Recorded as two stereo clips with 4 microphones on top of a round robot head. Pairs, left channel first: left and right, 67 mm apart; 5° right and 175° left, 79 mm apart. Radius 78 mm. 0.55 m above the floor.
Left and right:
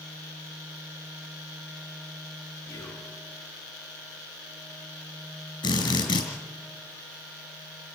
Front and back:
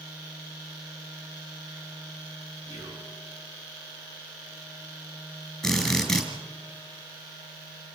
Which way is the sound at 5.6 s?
80° left.